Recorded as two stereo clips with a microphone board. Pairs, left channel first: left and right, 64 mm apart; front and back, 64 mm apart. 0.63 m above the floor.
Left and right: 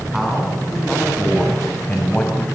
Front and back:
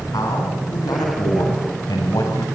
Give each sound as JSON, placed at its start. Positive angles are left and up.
{"t": 0.1, "sound": "a man speaking", "azimuth_deg": 0, "distance_m": 7.5}